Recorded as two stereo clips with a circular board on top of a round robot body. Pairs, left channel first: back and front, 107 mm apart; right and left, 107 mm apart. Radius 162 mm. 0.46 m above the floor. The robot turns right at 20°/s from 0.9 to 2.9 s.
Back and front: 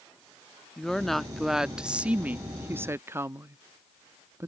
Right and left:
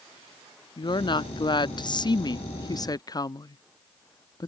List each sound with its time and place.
0.8 s a woman speaking: 95° right; by 4.5 s 55° right